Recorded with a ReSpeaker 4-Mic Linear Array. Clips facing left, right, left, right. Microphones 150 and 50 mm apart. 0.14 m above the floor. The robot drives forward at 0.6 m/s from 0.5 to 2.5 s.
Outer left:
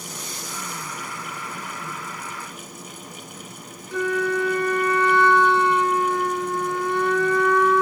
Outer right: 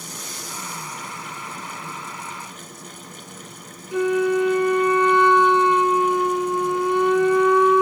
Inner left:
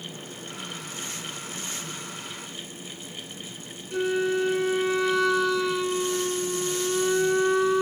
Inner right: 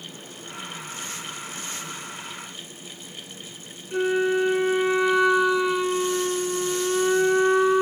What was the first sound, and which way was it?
A flute, 20° right (ahead or behind).